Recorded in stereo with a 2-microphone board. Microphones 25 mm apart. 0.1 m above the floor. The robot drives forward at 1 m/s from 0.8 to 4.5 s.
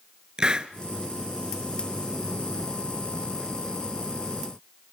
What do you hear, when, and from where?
0.4 s a hiss: 30° right (ahead or behind), 1.1 m